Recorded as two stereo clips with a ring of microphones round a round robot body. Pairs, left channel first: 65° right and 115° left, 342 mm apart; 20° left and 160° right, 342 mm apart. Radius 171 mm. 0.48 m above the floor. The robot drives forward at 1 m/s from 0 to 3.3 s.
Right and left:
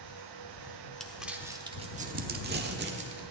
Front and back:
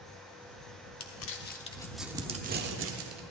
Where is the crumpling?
20° left, 1.3 m; by 3.2 s 165° left, 1.7 m.